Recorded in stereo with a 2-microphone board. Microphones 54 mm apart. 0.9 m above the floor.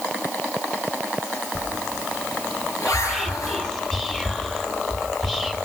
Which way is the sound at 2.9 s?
5° left (ahead or behind).